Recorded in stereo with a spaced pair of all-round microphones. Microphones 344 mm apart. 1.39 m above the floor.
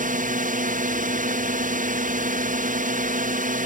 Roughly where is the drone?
Right.